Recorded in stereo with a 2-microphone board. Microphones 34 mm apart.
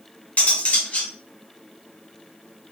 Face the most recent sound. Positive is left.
turn(degrees=45)  # may be behind; listen again after turning